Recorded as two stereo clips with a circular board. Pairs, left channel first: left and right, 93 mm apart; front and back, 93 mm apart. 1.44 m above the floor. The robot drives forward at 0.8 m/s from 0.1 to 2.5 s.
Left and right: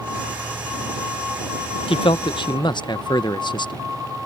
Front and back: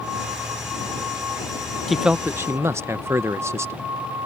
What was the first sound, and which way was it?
A man speaking, 90° left.